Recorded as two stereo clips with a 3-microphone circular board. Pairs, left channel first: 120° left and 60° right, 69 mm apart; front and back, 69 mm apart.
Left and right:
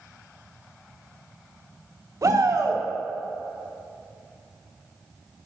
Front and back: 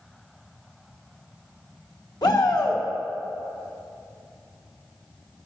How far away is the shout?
About 1.8 m.